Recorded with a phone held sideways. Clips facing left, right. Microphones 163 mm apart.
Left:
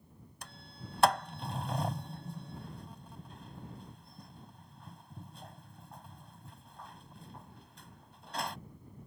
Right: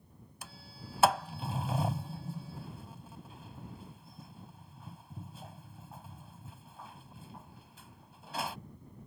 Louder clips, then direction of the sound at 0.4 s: Even; 5° right (ahead or behind).